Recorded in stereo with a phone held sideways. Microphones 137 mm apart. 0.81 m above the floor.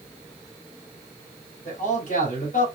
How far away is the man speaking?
About 4 m.